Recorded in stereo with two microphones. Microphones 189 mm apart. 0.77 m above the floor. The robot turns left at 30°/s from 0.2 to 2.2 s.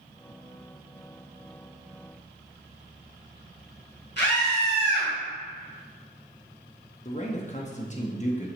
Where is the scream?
70° left (ahead or behind), 2.5 m.